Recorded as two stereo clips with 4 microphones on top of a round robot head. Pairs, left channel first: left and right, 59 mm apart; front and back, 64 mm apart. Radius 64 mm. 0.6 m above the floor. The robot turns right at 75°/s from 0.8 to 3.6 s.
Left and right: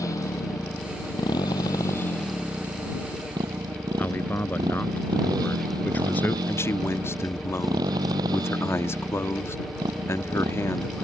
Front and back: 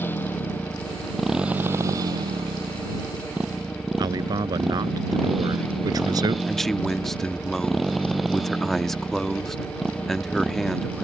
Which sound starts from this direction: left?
A man speaking, at 6.5 s.